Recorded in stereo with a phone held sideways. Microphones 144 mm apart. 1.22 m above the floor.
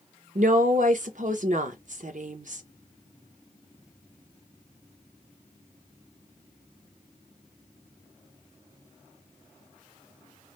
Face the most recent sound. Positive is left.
turn(degrees=-60)  # may be behind; listen again after turning